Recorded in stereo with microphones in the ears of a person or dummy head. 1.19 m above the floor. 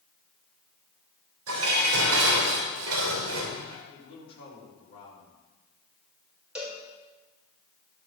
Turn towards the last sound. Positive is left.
turn(degrees=-5)  # may be behind; listen again after turning